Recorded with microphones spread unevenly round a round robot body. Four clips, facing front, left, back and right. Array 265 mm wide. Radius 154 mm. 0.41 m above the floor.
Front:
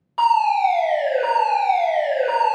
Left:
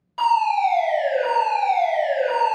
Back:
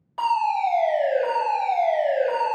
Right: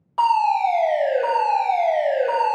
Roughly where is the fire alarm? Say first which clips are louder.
Right 1 dB, front 5 dB; ahead right.